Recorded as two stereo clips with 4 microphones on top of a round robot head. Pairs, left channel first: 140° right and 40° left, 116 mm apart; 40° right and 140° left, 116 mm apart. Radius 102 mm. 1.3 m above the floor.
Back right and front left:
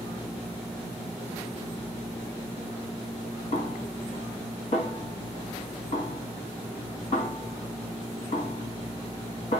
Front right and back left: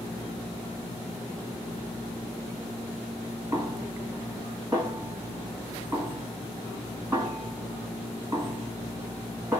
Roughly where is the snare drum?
Behind right.